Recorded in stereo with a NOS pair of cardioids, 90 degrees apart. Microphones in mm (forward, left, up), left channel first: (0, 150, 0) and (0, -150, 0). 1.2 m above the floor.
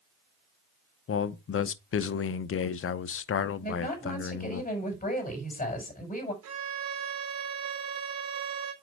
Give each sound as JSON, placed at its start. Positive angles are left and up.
{"t": 1.1, "sound": "a man speaking", "azimuth_deg": 45, "distance_m": 0.9}
{"t": 3.6, "sound": "a woman speaking", "azimuth_deg": 25, "distance_m": 6.0}
{"t": 6.4, "sound": "a violin", "azimuth_deg": -65, "distance_m": 4.0}